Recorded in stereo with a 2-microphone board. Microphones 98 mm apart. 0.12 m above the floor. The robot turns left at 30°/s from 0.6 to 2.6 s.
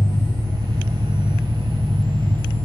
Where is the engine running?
140° right, 1.4 m; by 2.6 s 160° left, 1.4 m.